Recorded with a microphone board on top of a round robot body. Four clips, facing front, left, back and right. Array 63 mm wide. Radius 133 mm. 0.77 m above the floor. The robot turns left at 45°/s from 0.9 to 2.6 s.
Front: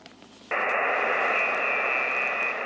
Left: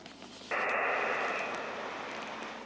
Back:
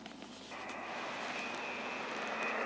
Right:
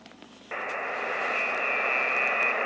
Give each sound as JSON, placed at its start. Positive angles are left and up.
{"t": 0.5, "sound": "a buzzer", "azimuth_deg": 0}